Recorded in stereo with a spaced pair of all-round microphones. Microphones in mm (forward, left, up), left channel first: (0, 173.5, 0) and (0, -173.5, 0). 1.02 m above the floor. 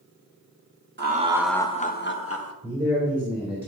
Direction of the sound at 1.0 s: 30° right (ahead or behind).